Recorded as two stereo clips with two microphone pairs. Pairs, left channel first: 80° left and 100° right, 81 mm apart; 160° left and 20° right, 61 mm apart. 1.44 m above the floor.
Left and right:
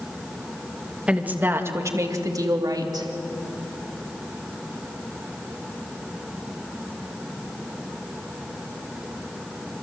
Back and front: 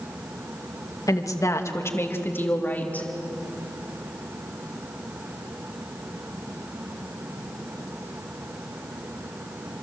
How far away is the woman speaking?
About 2 m.